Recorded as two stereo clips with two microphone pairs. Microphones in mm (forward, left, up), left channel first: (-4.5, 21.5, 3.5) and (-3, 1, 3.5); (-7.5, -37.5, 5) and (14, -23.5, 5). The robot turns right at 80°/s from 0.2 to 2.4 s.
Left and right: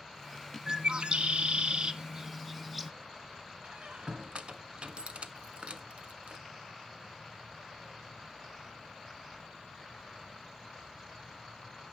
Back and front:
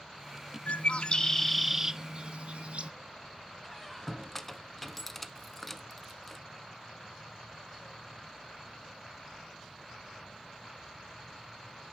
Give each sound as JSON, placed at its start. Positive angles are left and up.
{"t": 0.7, "sound": "a bird", "azimuth_deg": -135, "distance_m": 0.7}
{"t": 3.6, "sound": "a squeak", "azimuth_deg": -65, "distance_m": 0.9}